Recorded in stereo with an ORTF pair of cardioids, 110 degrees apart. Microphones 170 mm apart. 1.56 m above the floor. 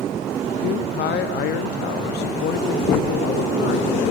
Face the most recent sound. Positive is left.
turn(degrees=65)